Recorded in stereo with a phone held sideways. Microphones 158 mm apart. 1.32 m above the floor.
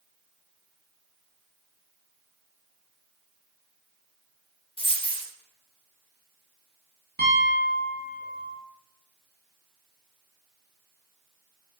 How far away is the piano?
About 0.9 m.